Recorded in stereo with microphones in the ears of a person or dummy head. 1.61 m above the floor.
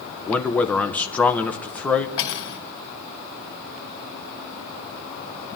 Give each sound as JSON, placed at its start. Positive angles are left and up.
{"t": 0.3, "sound": "a man speaking", "side_deg": 10, "distance_m": 1.1}
{"t": 2.2, "sound": "cutlery clinking", "side_deg": 65, "distance_m": 2.0}